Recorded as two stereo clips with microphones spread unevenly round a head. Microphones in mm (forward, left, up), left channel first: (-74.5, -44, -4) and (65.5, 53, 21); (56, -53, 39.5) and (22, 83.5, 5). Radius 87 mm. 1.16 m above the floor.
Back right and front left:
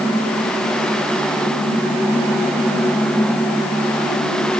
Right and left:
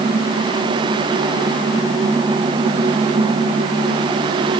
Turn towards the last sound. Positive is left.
No sound to turn to.